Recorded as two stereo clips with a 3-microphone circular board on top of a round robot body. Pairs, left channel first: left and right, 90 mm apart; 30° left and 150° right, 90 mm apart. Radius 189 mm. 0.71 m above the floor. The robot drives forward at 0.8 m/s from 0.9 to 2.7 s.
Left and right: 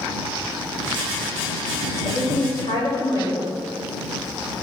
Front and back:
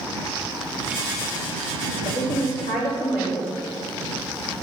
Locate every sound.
2.0 s a woman speaking: 40° left, 4.5 m; by 3.6 s 45° left, 4 m